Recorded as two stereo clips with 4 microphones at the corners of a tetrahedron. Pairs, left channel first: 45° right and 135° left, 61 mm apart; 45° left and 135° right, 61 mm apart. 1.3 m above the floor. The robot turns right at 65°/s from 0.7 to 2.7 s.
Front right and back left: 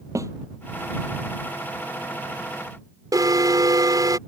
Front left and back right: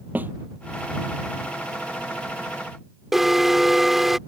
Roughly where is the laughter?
No laughter in this recording.